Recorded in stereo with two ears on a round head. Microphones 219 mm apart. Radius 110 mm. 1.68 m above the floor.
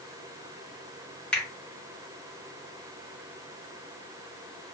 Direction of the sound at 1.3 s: 5° left (ahead or behind).